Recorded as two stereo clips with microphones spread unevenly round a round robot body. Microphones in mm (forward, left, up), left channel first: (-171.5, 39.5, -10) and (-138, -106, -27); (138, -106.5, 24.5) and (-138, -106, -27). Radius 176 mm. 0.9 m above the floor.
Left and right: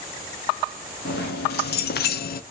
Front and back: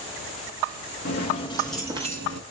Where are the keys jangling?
65° left, 0.8 m; by 2.4 s 130° left, 0.6 m.